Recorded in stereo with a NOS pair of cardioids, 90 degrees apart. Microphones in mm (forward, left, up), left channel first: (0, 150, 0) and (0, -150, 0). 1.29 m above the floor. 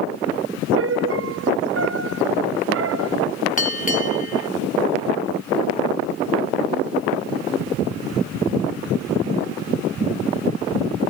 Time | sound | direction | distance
0.8 | a piano | 45° right | ?
3.6 | a bell | 25° left | ?